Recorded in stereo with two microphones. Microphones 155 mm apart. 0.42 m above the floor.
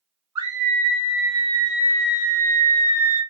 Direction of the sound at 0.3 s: 25° right (ahead or behind).